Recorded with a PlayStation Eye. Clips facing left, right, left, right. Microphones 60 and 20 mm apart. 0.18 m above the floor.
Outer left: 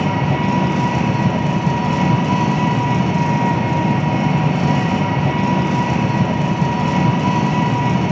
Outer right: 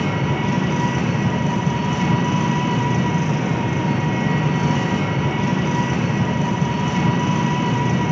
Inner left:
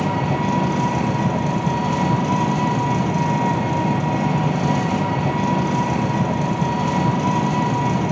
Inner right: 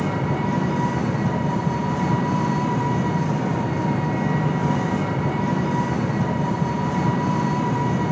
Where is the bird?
I don't hear a bird.